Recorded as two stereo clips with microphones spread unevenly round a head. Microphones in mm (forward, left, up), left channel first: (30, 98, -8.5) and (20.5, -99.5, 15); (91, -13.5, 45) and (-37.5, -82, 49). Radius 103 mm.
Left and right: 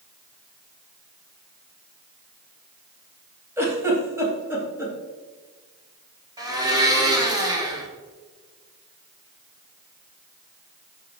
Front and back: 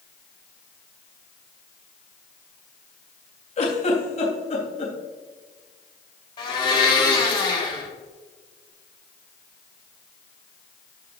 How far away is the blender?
About 3 m.